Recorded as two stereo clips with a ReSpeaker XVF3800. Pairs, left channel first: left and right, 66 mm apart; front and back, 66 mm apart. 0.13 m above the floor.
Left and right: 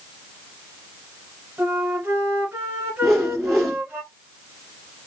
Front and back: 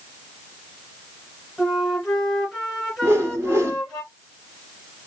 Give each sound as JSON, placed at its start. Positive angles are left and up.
{"t": 1.6, "sound": "a flute", "azimuth_deg": -100, "distance_m": 1.7}
{"t": 3.0, "sound": "a whoosh", "azimuth_deg": 180, "distance_m": 1.1}